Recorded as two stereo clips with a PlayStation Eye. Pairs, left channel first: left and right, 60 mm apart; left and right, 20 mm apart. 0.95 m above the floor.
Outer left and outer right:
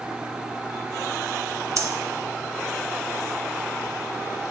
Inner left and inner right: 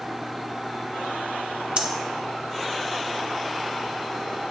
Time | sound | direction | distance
1.8 | breathing | 60° right (ahead or behind) | 0.5 m